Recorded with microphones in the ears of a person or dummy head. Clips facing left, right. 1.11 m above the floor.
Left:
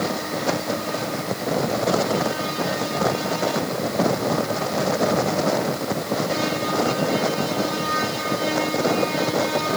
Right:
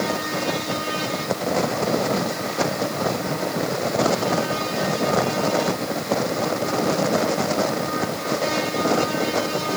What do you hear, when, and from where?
Only background noise.